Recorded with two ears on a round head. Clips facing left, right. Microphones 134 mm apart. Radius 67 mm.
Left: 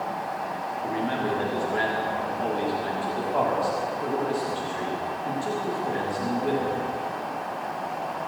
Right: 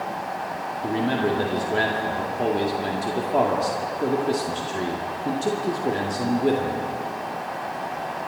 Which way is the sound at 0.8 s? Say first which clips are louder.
Right 5 dB; 45° right (ahead or behind).